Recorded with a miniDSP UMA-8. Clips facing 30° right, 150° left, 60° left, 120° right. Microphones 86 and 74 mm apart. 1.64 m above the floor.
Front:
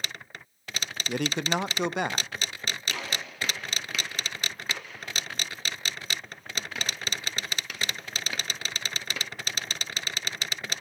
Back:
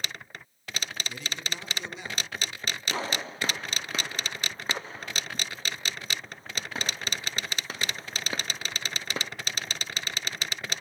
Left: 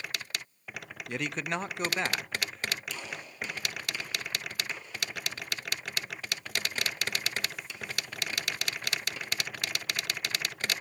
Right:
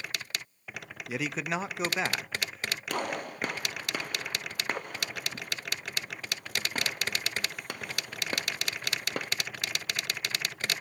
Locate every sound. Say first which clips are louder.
1.1 s a man speaking: front 14 dB, right 1 dB; 35° right, 0.5 m
2.9 s a gunshot: back 4 dB, right 9 dB; 155° right, 0.7 m